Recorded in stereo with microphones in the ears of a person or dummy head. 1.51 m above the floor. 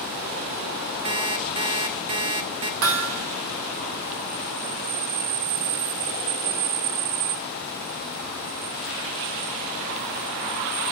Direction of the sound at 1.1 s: 25° right (ahead or behind).